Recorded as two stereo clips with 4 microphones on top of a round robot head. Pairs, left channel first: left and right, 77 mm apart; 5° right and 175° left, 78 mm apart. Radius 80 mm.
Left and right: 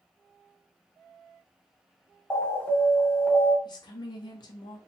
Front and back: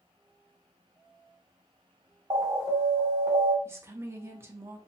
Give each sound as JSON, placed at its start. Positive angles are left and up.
{"t": 2.3, "sound": "an alarm", "azimuth_deg": 155, "distance_m": 1.6}
{"t": 3.6, "sound": "a woman speaking", "azimuth_deg": 120, "distance_m": 0.7}